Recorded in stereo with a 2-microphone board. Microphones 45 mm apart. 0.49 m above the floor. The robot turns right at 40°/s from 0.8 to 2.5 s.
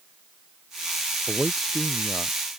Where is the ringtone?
No ringtone in this recording.